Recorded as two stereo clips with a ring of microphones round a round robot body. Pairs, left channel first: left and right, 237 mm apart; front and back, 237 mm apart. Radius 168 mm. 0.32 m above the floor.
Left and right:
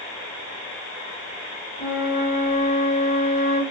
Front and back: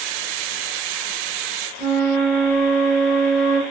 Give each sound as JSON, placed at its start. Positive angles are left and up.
{"t": 1.8, "sound": "a flute", "azimuth_deg": 90, "distance_m": 1.6}